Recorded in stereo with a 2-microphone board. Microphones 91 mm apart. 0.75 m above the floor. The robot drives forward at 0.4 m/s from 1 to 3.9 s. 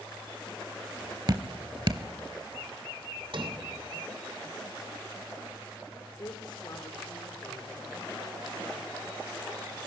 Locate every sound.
1.3 s dripping: 45° right (ahead or behind), 0.8 m; by 2.0 s 50° right (ahead or behind), 0.7 m
3.3 s a sliding door: 70° right (ahead or behind), 3 m; by 3.5 s 65° right (ahead or behind), 3 m
6.2 s a woman speaking: 50° left (ahead or behind), 2.5 m